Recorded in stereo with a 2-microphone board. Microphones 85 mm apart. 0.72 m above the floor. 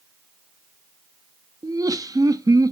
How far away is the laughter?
About 0.7 m.